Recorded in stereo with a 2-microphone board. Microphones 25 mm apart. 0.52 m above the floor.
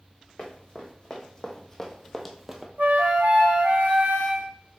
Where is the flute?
80° right, 0.9 m.